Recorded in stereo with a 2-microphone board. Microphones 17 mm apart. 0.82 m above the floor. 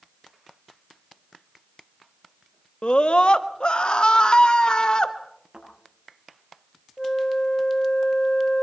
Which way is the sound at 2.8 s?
60° left (ahead or behind).